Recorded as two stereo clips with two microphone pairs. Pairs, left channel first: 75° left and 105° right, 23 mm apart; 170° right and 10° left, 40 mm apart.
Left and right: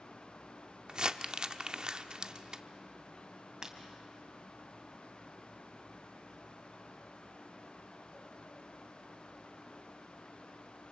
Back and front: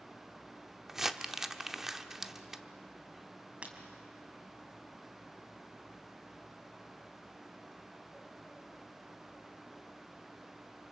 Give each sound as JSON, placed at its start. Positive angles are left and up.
{"t": 0.9, "sound": "crumpling", "azimuth_deg": -70, "distance_m": 0.8}
{"t": 3.6, "sound": "breaking glass", "azimuth_deg": -45, "distance_m": 2.5}